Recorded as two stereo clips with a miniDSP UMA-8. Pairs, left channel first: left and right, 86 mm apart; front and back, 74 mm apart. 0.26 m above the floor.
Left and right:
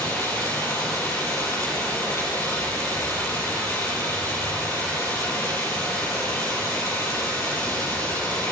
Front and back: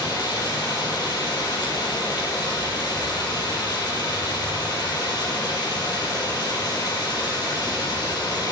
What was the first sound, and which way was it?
Running water, 30° left.